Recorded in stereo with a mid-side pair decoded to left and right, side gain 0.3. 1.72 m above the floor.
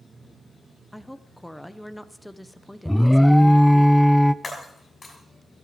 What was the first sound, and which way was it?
A woman speaking, 5° left.